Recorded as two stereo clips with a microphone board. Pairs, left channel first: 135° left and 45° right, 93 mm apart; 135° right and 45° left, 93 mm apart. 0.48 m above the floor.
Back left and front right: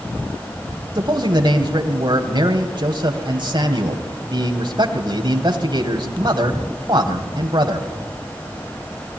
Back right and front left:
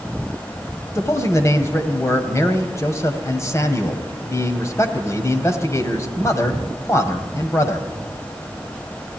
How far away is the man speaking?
About 2.5 m.